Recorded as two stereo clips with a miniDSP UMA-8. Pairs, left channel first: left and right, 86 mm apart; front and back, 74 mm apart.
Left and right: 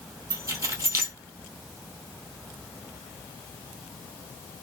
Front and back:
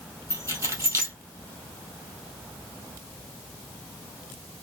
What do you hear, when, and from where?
0.3 s keys jangling: 135° right, 2 m